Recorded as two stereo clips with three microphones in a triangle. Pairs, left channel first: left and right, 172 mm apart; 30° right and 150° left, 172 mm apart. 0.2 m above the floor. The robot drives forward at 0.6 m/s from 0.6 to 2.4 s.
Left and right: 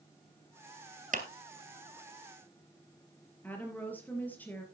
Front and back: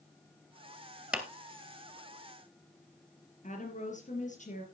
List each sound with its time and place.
1.1 s a clap: 125° right, 2.5 m
3.4 s a woman speaking: 10° left, 3.5 m